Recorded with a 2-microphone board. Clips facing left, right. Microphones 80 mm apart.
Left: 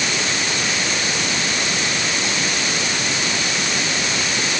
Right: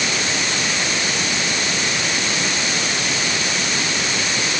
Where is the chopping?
I don't hear chopping.